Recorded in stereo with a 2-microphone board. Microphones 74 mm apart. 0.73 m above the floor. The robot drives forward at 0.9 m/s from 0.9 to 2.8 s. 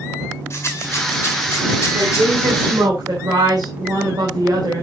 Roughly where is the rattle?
Left.